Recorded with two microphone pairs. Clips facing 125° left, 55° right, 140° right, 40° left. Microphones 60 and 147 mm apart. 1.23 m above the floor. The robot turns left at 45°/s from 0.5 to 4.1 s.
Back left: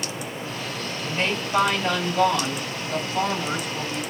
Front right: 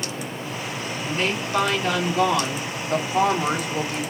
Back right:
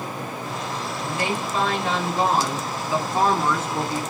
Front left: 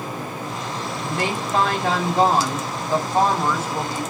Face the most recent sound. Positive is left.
turn(degrees=-60)